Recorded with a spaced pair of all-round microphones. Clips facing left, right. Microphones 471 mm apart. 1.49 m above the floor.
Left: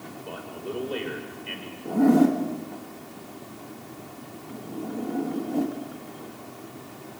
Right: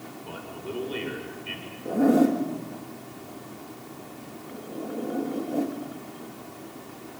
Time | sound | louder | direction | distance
0.2 | a man speaking | left 2 dB | 25° right (ahead or behind) | 5 m
1.9 | a zipper | left 1 dB | 15° left (ahead or behind) | 2 m